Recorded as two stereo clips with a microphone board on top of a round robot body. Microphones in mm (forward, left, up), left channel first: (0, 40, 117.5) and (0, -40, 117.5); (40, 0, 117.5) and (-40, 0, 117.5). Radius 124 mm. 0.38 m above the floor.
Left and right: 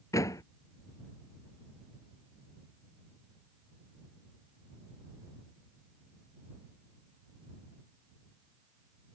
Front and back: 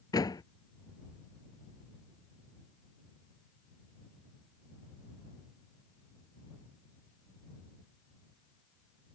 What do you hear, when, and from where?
0.1 s a door slam: 40° left